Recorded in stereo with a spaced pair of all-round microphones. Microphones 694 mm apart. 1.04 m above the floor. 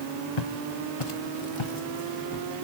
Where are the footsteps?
50° left (ahead or behind), 1.5 m; by 2.6 s 35° left (ahead or behind), 1.8 m.